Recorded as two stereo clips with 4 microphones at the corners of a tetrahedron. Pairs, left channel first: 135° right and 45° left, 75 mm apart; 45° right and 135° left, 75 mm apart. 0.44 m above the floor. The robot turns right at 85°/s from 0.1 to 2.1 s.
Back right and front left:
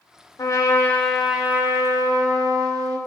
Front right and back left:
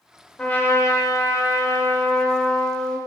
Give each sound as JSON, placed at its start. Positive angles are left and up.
{"t": 0.4, "sound": "a trumpet", "azimuth_deg": -115, "distance_m": 0.7}